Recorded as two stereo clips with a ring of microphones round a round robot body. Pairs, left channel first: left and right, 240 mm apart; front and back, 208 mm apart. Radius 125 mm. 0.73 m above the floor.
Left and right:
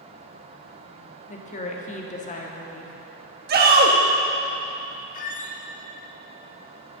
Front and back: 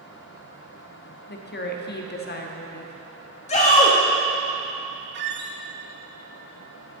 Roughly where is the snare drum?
No snare drum in this recording.